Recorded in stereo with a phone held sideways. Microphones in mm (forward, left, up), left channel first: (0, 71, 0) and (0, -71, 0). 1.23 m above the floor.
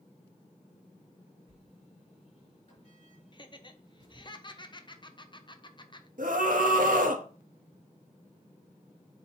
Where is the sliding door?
55° left (ahead or behind), 4.5 m.